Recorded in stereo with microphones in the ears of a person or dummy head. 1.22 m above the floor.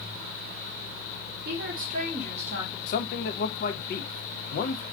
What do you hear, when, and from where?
1.4 s a woman speaking: 55° right (ahead or behind), 0.6 m; by 2.8 s 30° right (ahead or behind), 1.0 m
2.9 s a man speaking: 65° left (ahead or behind), 0.5 m